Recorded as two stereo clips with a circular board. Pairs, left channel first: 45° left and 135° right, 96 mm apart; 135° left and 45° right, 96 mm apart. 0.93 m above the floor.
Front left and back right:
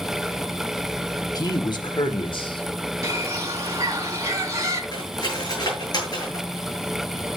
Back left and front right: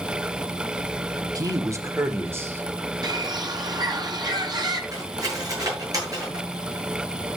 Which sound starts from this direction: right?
A bird, at 3.0 s.